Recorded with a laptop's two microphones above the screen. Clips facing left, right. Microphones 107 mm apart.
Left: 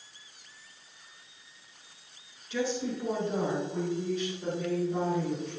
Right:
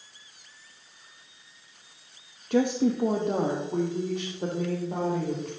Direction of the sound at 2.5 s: 55° right (ahead or behind).